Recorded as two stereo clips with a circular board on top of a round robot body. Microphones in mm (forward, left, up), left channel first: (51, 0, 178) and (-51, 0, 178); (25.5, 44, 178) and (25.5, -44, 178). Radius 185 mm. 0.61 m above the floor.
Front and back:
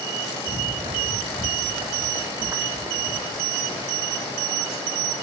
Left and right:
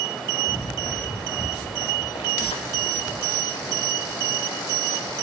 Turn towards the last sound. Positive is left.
turn(degrees=95)